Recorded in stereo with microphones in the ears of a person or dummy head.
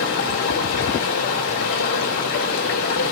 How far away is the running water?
About 3 m.